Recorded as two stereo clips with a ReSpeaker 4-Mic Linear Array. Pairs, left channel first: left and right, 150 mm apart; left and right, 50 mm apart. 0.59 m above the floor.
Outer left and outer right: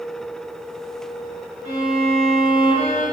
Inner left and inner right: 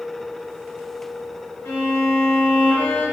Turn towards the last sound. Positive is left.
turn(degrees=80)